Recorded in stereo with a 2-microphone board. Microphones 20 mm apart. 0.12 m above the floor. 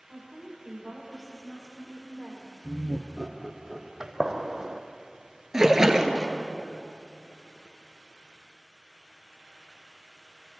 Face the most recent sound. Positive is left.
turn(degrees=-25)  # may be behind; listen again after turning